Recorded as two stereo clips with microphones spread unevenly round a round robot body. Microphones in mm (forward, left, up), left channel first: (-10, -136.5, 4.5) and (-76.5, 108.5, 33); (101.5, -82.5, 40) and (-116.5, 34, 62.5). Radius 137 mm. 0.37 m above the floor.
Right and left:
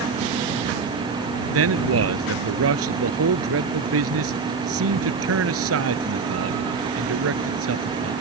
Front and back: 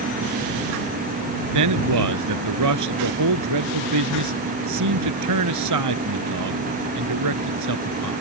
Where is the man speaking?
135° left.